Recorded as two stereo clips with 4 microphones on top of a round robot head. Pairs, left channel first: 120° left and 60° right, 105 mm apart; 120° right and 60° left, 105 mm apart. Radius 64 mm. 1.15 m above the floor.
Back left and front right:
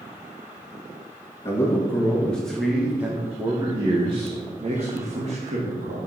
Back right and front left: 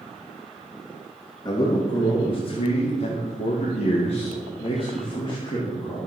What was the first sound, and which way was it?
A man speaking, 170° right.